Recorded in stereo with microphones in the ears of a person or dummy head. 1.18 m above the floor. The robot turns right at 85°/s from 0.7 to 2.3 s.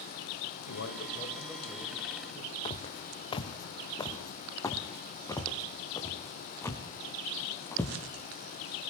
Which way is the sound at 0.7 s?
105° left.